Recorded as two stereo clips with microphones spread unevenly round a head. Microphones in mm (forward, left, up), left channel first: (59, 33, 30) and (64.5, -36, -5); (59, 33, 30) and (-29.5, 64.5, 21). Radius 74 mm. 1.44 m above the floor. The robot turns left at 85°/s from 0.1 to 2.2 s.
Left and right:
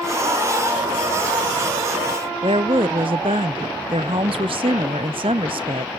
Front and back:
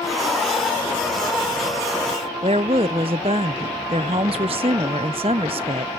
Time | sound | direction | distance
2.4 | a woman speaking | 145° right | 0.5 m